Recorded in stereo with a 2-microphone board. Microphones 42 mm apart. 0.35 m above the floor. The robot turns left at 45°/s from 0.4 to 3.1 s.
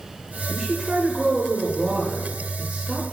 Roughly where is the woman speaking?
Centre.